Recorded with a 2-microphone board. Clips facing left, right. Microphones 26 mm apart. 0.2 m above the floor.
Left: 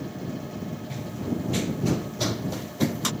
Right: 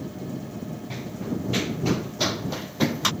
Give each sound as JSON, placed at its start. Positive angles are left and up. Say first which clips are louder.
{"t": 0.9, "sound": "running footsteps", "louder": "even", "side_deg": -25}